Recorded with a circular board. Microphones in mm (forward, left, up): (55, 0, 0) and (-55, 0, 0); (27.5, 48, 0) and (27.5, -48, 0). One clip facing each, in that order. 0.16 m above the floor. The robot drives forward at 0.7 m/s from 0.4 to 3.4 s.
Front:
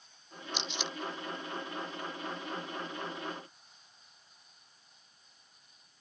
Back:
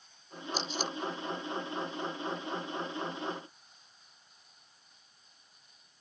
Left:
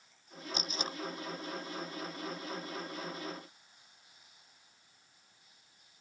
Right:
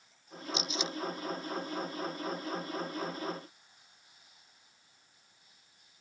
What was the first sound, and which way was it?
Tape being pulled, 130° left.